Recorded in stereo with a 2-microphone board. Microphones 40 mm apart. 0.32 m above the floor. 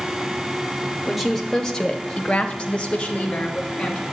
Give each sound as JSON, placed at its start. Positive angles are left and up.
{"t": 1.1, "sound": "a woman speaking", "side_deg": 0, "distance_m": 1.1}